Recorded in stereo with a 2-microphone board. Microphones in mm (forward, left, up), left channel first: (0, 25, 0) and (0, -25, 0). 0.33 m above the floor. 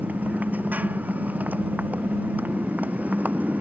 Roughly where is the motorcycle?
Right.